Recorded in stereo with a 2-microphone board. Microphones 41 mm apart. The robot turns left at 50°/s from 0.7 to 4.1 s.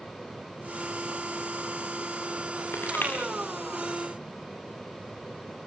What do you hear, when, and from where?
2.7 s crushing: 70° left (ahead or behind), 6 m; by 3.1 s 55° left (ahead or behind), 6 m